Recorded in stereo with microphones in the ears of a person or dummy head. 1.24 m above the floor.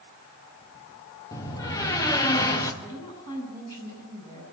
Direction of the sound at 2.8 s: 20° left (ahead or behind).